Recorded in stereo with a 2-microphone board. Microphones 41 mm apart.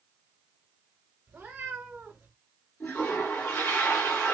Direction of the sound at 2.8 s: 70° left (ahead or behind).